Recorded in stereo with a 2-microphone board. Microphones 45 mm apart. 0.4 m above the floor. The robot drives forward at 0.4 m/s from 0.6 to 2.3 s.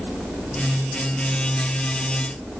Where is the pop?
I don't hear a pop.